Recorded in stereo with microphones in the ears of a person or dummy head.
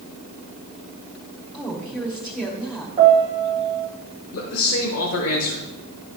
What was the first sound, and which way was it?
A woman speaking, 5° right (ahead or behind).